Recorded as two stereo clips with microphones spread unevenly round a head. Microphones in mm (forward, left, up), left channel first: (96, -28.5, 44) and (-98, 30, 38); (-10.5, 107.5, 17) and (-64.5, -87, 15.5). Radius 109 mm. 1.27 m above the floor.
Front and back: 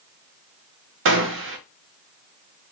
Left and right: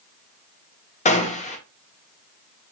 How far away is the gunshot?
About 0.9 m.